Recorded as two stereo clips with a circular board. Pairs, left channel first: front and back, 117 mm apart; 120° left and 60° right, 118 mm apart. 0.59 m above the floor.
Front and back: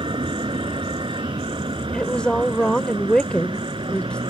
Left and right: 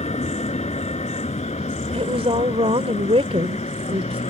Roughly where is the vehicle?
Behind left.